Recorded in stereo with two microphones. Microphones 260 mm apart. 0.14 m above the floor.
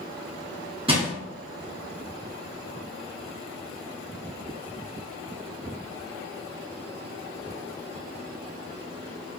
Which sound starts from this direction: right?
Crushing, at 0.9 s.